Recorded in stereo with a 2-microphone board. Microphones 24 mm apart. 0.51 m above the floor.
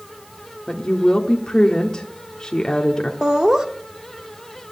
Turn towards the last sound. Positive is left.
turn(degrees=-30)  # may be behind; listen again after turning